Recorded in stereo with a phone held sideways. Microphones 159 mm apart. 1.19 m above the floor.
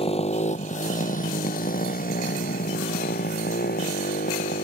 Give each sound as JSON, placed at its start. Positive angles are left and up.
{"t": 0.0, "sound": "a motorcycle", "side_deg": 40}